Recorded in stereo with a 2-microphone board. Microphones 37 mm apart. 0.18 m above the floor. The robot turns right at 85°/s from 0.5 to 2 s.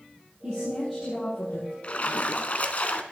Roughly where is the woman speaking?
Ahead right.